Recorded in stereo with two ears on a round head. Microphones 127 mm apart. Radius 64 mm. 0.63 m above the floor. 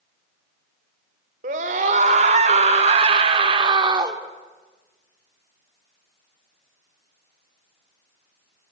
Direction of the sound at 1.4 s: 55° right (ahead or behind).